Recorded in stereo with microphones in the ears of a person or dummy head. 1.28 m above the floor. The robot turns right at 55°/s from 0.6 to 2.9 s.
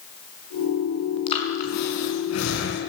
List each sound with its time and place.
1.3 s breathing: 25° left (ahead or behind), 5.5 m; by 2.8 s 65° left (ahead or behind), 5.5 m